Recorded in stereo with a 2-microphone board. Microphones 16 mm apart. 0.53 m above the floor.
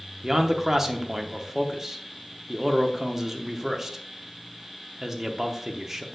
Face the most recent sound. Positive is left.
turn(degrees=-25)  # may be behind; listen again after turning